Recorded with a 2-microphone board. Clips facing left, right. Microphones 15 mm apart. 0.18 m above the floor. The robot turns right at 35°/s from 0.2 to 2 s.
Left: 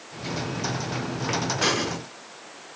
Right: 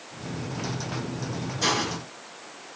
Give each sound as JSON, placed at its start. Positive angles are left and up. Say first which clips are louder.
{"t": 1.6, "sound": "a hiss", "louder": "right 2 dB", "side_deg": 0, "distance_m": 1.5}